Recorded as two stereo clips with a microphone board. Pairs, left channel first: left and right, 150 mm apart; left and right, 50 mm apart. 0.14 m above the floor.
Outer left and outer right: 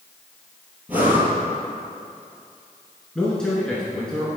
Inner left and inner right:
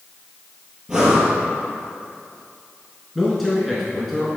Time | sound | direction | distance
0.9 | breathing | 10° right (ahead or behind) | 1.8 m
3.1 | a man speaking | 5° left (ahead or behind) | 1.3 m